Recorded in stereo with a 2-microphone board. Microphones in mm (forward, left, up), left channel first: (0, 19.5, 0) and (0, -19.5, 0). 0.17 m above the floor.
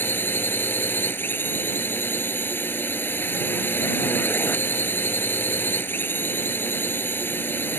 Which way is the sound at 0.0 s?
65° left (ahead or behind).